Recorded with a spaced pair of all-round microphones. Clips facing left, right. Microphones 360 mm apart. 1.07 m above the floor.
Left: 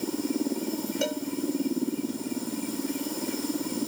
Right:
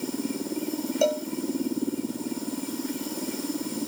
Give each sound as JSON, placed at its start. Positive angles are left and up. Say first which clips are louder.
{"t": 1.0, "sound": "a cowbell", "louder": "right 8 dB", "side_deg": 25}